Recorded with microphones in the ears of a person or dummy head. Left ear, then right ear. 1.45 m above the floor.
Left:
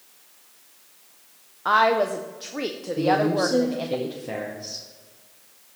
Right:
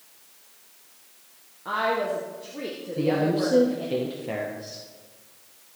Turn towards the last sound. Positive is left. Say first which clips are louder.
# left 3 dB
turn(degrees=-5)  # may be behind; listen again after turning